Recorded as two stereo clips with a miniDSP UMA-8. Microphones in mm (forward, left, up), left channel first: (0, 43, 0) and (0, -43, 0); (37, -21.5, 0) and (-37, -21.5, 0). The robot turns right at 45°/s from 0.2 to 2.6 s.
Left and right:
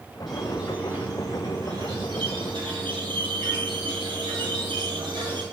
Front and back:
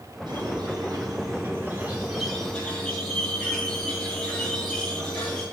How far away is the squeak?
About 3 m.